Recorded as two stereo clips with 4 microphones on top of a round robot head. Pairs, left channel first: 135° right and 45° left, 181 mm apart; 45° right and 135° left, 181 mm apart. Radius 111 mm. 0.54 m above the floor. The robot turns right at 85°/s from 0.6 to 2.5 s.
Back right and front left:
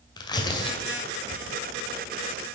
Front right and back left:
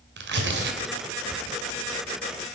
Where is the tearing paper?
155° left, 2 m; by 1.6 s 120° right, 2 m.